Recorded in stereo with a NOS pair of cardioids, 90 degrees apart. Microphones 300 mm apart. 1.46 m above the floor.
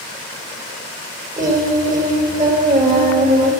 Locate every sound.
1.4 s singing: 25° right, 7 m